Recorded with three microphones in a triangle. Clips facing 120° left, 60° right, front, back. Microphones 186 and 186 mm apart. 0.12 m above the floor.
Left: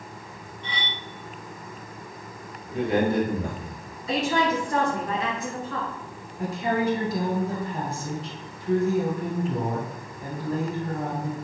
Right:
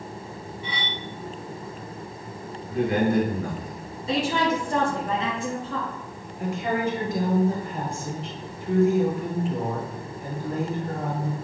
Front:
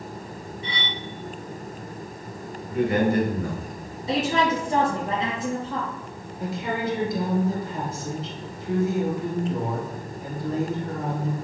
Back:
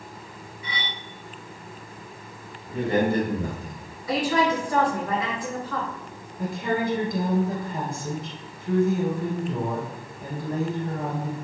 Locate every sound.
0.6 s cutlery clinking: 10° left, 1.0 m
2.7 s a man speaking: 165° left, 1.7 m
4.1 s a woman speaking: 40° right, 1.6 m
6.4 s a woman speaking: 165° left, 1.8 m